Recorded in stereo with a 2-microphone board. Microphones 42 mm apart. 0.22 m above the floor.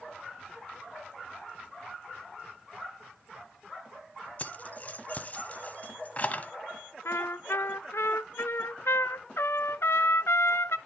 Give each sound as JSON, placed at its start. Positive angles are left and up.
{"t": 4.4, "sound": "keys jangling", "side_deg": 35, "distance_m": 0.9}
{"t": 7.0, "sound": "a trumpet", "side_deg": 80, "distance_m": 0.5}